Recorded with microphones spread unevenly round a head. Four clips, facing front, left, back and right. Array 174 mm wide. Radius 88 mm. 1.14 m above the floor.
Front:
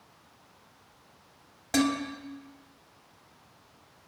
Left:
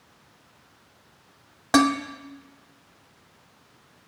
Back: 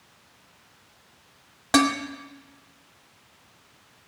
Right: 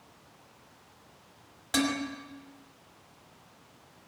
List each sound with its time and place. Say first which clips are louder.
1.7 s dishes clattering: left 10 dB, back 5 dB; 120° left, 2.5 m